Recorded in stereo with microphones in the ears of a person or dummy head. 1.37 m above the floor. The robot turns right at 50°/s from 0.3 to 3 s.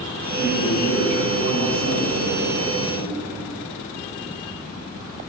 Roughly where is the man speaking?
Ahead left.